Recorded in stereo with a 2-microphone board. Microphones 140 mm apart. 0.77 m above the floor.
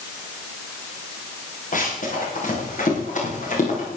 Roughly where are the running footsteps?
Left.